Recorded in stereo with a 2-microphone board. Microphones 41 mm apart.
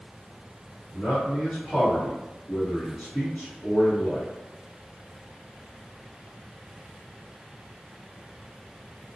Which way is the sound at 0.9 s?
30° left (ahead or behind).